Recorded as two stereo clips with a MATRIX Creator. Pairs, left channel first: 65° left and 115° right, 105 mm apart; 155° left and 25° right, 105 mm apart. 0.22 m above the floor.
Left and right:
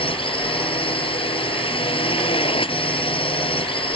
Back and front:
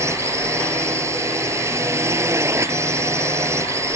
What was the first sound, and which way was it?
A drone, 40° left.